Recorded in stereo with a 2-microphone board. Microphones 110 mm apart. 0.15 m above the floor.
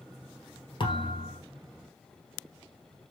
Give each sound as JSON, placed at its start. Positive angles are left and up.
{"t": 0.8, "sound": "a thud", "side_deg": 50, "distance_m": 1.5}